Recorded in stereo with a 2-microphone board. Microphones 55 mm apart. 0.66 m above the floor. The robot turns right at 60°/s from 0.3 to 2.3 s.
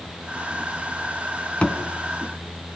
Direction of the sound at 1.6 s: 25° left (ahead or behind).